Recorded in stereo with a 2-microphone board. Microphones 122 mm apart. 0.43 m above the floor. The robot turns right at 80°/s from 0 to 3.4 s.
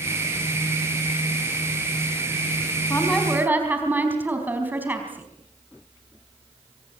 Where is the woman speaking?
155° left, 4 m; by 5.3 s 165° right, 4 m.